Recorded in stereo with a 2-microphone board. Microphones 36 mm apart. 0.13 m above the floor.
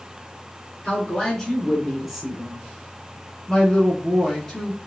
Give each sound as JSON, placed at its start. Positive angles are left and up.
{"t": 0.8, "sound": "a woman speaking", "side_deg": 20, "distance_m": 1.6}
{"t": 3.5, "sound": "a woman speaking", "side_deg": 10, "distance_m": 1.1}